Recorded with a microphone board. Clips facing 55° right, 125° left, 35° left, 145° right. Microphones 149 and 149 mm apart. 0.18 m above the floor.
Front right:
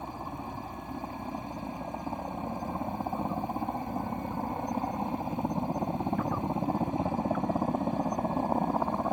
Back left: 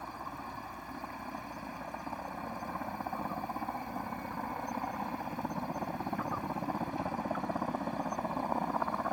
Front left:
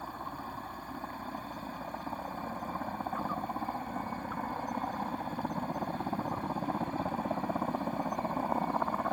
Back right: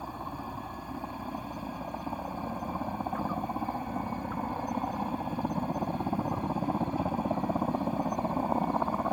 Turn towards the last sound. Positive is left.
turn(degrees=-85)